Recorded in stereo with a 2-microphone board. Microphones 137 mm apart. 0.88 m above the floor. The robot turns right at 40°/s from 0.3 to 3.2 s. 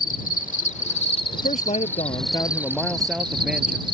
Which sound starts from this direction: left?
An insect, at 0.0 s.